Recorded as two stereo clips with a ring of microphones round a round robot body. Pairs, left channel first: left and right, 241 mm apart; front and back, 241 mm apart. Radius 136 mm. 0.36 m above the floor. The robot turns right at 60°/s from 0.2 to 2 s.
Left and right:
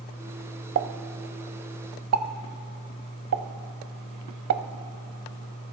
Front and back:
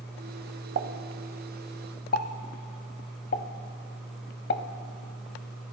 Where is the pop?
130° right, 0.6 m; by 5.7 s 55° right, 0.6 m.